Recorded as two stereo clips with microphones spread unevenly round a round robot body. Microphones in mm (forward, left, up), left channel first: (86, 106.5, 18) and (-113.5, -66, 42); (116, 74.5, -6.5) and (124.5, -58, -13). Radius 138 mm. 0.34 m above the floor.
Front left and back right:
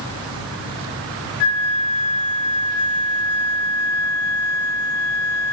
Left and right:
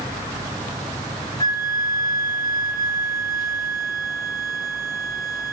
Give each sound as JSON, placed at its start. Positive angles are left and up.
{"t": 1.4, "sound": "a flute", "azimuth_deg": 30, "distance_m": 0.8}